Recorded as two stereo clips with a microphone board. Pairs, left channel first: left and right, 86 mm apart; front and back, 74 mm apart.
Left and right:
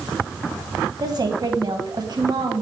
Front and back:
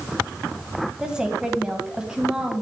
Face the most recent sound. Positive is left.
turn(degrees=-105)